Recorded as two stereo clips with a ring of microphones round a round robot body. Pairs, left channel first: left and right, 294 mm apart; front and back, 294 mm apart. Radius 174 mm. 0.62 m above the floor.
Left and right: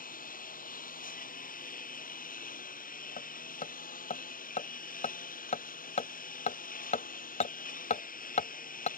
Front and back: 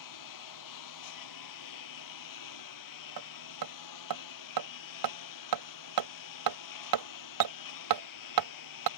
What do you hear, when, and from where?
0.0 s a lawn mower: 30° left
3.2 s hammering: 160° left